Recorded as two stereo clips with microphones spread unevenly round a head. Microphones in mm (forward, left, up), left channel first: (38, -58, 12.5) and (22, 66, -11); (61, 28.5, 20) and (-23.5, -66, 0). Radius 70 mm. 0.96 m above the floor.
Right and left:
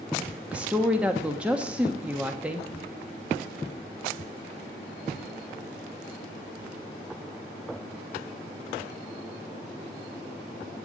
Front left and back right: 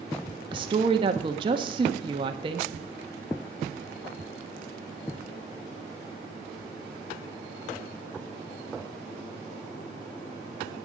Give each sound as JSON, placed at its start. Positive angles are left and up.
{"t": 0.5, "sound": "a woman speaking", "azimuth_deg": 175, "distance_m": 1.2}